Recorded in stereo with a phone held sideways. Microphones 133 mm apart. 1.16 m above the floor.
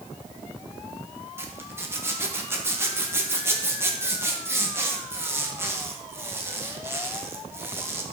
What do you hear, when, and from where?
1.4 s a zipper: 20° right (ahead or behind), 1.2 m